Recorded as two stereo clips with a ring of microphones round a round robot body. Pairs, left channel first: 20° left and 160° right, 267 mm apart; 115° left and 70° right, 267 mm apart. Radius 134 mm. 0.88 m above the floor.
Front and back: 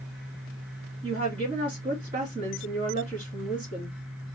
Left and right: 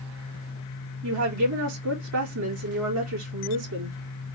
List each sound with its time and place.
1.0 s a woman speaking: 90° right, 2 m